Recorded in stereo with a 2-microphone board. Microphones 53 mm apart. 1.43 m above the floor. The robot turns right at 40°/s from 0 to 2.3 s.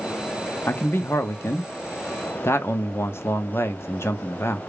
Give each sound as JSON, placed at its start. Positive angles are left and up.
{"t": 0.7, "sound": "a man speaking", "azimuth_deg": 45, "distance_m": 0.6}